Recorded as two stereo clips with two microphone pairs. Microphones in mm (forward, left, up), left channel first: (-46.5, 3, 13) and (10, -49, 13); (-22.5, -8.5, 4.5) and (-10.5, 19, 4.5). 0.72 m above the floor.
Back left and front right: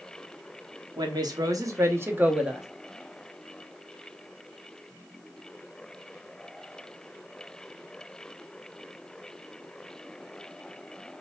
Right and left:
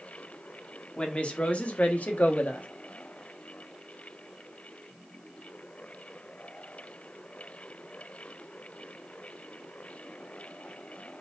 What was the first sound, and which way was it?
A woman speaking, 65° right.